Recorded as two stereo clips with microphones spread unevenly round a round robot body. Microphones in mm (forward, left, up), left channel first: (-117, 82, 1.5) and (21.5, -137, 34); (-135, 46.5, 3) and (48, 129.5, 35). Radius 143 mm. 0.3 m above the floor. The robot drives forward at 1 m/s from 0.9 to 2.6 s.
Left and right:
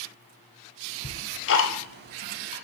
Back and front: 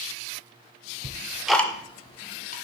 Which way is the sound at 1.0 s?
75° left.